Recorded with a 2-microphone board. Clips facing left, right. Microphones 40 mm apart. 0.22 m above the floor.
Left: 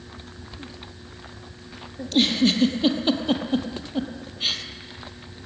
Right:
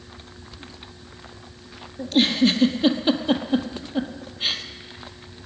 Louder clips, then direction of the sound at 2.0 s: Right 1 dB; centre (ahead or behind).